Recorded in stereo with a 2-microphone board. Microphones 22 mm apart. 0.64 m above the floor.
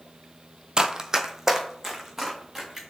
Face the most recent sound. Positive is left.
turn(degrees=-5)  # may be behind; listen again after turning